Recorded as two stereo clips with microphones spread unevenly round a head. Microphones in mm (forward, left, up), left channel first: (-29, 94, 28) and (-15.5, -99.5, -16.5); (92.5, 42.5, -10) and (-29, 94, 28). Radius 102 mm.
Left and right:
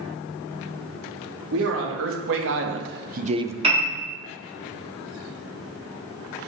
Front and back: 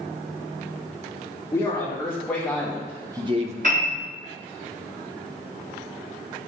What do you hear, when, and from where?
1.5 s a man speaking: 105° right, 2.5 m; by 3.5 s 175° right, 0.6 m
3.6 s a piano: 145° right, 3.5 m